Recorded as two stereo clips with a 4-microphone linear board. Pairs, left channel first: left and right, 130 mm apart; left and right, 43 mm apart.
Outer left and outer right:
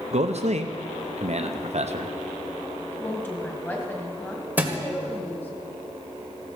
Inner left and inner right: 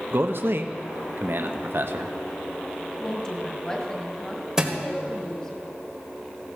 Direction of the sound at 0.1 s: 55° right (ahead or behind).